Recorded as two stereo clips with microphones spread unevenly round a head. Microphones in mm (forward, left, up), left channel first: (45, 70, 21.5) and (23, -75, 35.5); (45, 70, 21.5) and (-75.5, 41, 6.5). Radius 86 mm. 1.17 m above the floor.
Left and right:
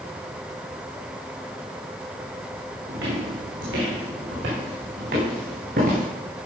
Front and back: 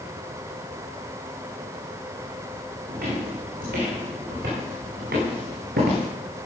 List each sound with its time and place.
2.9 s footsteps: 120° right, 5 m; by 6.1 s 140° right, 6.5 m